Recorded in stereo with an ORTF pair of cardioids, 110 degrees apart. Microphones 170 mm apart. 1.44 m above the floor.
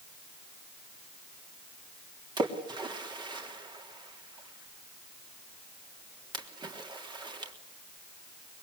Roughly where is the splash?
Ahead right.